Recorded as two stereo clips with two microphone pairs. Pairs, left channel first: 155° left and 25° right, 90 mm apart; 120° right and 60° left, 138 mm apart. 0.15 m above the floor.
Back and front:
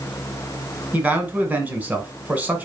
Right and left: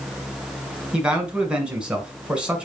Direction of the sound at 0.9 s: 5° right.